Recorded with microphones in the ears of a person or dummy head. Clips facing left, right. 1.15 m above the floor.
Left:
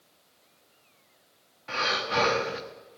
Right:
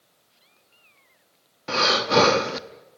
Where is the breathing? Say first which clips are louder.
Right 10 dB; 55° right (ahead or behind), 0.7 m.